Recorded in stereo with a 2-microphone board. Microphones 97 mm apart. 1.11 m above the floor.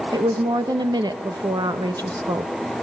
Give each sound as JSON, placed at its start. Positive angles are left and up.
{"t": 0.1, "sound": "a woman speaking", "side_deg": -45, "distance_m": 0.9}